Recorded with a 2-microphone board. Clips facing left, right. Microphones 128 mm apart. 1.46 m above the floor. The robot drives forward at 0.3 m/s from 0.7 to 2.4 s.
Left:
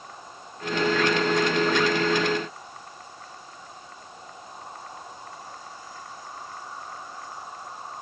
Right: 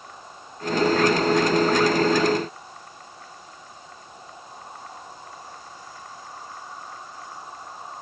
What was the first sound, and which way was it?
Only background noise.